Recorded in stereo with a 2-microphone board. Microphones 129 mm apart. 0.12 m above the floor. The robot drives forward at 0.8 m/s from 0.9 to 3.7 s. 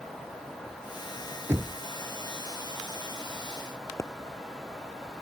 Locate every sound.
1.5 s knocking: 20° right (ahead or behind); by 1.8 s 25° right (ahead or behind)
4.0 s a pop: 20° left (ahead or behind)